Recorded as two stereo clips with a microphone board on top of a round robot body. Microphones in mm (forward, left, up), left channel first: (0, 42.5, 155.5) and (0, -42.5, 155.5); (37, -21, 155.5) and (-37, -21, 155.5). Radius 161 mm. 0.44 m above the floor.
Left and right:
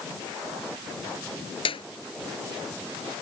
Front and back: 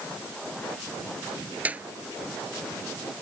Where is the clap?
110° left.